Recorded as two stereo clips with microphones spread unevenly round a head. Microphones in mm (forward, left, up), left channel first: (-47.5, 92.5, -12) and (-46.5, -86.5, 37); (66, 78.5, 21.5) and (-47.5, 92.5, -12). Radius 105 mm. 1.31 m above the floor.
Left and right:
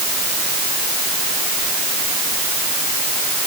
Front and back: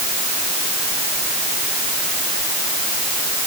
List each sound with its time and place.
Only background noise.